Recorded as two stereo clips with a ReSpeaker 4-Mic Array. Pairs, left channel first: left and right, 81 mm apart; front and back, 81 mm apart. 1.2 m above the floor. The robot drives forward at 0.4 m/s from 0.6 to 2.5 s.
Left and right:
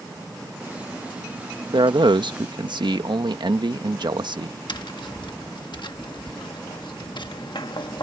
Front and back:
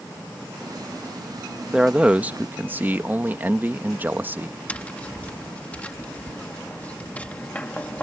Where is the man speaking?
95° right; by 4.6 s 110° right.